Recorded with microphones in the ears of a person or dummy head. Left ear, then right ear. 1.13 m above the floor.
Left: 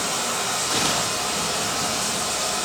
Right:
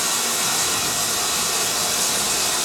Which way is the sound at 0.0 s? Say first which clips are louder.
Right 2 dB; 80° right.